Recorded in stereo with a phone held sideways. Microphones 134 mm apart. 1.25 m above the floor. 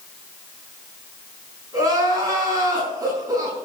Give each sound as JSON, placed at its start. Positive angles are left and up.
{"t": 1.7, "sound": "crying", "side_deg": -25, "distance_m": 6.0}